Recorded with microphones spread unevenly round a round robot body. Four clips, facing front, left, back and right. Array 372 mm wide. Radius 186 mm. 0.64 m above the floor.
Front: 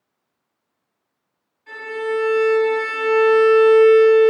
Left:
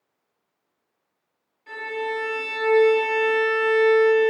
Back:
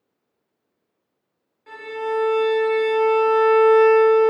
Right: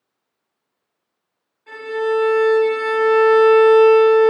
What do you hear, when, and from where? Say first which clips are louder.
1.7 s a violin: right 8 dB, front 2 dB; 175° left, 1.4 m